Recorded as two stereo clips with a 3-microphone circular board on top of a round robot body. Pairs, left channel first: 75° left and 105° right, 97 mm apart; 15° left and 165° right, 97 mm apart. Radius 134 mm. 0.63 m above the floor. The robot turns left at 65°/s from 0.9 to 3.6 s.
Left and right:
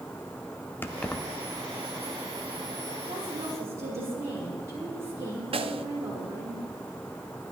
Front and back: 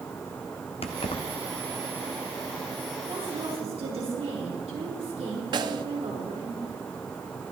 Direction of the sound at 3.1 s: 135° right.